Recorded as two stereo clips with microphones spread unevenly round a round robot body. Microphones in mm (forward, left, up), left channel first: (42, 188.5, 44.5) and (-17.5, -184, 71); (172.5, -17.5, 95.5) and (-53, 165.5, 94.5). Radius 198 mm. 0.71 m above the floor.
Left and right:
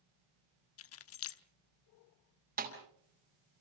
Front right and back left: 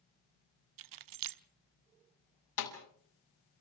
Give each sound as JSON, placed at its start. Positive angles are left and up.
{"t": 0.8, "sound": "keys jangling", "azimuth_deg": 135, "distance_m": 0.8}
{"t": 2.6, "sound": "a snare drum", "azimuth_deg": -30, "distance_m": 5.0}